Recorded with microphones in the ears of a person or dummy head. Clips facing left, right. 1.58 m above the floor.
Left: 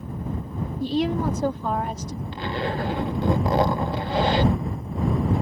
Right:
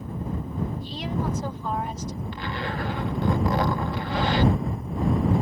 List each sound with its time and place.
0.8 s a woman speaking: 50° left (ahead or behind)
2.3 s a zipper: 25° left (ahead or behind)